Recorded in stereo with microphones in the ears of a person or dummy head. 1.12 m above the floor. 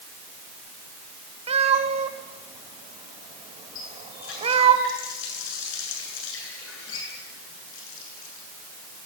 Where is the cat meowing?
25° right (ahead or behind), 2 m.